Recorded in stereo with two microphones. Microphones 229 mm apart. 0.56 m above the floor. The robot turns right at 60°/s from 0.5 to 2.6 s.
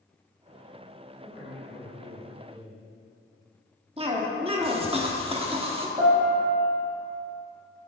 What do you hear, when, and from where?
1.2 s a man speaking: 80° left, 2.0 m; by 2.8 s 165° left, 2.0 m
4.0 s a cough: 25° right (ahead or behind), 1.1 m
6.0 s a piano: 20° right (ahead or behind), 2 m